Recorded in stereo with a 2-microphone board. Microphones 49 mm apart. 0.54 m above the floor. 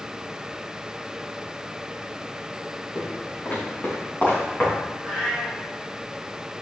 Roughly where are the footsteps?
Left.